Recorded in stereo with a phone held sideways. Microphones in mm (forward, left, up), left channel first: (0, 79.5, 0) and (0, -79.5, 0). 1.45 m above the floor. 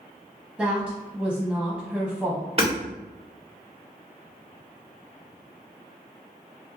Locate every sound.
0.6 s a woman speaking: centre (ahead or behind), 0.6 m
2.6 s hammering: 35° right (ahead or behind), 1.6 m